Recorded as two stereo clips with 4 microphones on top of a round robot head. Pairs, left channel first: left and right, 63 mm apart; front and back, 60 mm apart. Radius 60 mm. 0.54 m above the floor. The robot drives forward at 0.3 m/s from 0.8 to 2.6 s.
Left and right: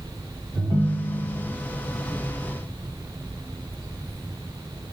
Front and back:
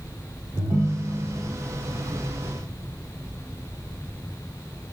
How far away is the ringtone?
About 1.1 m.